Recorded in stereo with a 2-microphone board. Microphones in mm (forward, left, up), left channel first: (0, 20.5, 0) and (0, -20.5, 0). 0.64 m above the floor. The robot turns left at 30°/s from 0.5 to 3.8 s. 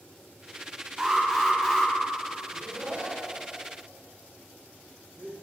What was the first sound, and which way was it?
An alarm, 15° right (ahead or behind).